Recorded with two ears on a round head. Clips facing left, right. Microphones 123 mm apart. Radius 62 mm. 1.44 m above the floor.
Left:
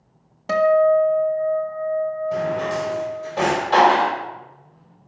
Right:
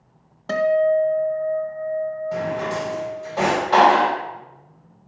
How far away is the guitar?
About 1.3 m.